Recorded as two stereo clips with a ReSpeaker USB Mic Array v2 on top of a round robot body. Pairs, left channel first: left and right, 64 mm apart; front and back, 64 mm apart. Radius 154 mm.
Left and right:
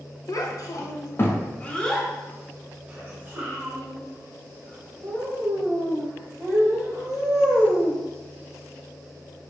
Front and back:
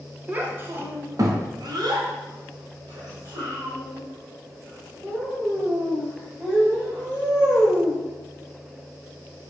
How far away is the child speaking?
About 1.0 m.